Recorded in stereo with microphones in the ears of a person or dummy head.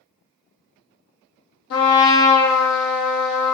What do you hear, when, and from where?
1.7 s a trumpet: 60° left (ahead or behind), 0.7 m